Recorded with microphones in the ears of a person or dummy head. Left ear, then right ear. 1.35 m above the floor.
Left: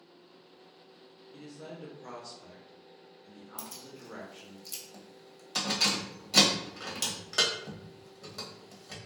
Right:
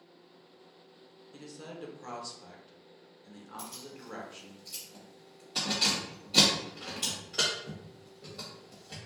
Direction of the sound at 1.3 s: 25° right (ahead or behind).